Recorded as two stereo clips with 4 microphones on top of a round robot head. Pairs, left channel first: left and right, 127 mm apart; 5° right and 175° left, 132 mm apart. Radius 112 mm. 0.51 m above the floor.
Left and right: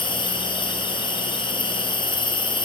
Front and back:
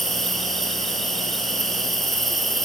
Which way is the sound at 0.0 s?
80° left.